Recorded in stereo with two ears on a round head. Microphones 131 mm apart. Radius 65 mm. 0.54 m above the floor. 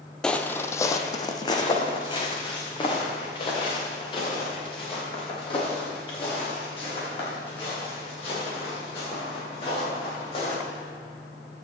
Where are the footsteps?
5° left (ahead or behind), 0.6 m; by 10.5 s 40° left (ahead or behind), 8.5 m.